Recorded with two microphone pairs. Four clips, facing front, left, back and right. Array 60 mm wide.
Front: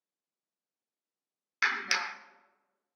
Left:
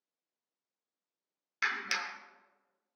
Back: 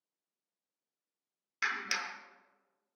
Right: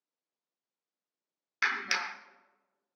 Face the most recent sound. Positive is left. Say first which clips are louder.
# right 3 dB, front 5 dB
turn(degrees=-30)